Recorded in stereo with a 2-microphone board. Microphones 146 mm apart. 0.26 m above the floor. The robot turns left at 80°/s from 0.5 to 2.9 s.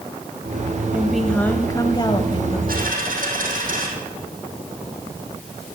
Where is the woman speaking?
165° right, 1.0 m; by 2.6 s 65° left, 1.0 m.